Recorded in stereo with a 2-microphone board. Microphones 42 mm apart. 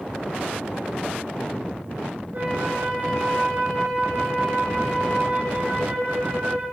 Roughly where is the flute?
Right.